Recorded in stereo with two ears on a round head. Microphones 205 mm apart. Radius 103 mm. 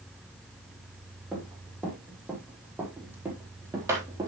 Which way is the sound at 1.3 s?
5° right (ahead or behind).